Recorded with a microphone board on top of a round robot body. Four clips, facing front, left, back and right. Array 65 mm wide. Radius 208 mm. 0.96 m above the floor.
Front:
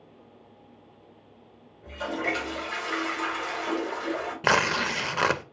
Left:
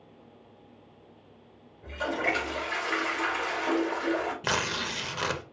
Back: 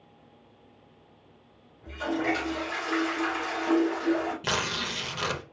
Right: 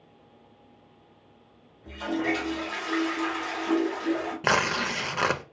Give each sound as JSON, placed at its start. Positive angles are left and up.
{"t": 1.8, "sound": "a toilet flushing", "azimuth_deg": 90, "distance_m": 2.5}
{"t": 4.4, "sound": "tearing paper", "azimuth_deg": -30, "distance_m": 0.6}